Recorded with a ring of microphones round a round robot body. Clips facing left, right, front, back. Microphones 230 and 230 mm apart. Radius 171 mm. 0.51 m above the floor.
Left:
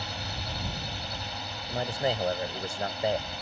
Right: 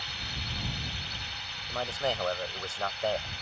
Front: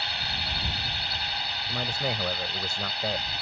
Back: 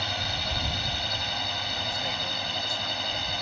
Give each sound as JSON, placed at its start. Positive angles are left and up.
{"t": 0.0, "sound": "a drone", "azimuth_deg": 140}
{"t": 1.7, "sound": "a man speaking", "azimuth_deg": 15}